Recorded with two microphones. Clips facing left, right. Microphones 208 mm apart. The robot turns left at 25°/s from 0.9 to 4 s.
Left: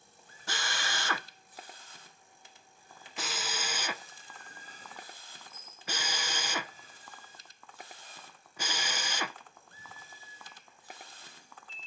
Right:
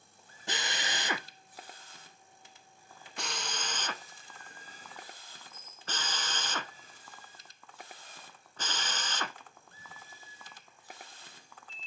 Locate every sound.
0.5 s a drill: 20° right (ahead or behind), 0.6 m; by 9.4 s 10° left (ahead or behind), 0.6 m